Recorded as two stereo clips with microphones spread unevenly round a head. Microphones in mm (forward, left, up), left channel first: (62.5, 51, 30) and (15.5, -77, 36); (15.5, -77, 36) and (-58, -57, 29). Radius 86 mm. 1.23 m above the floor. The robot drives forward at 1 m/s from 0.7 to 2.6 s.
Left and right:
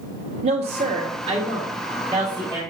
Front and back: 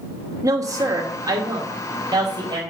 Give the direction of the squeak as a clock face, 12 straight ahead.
I don't hear a squeak.